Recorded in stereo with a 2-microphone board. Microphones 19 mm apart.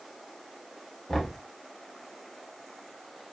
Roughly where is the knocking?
Left.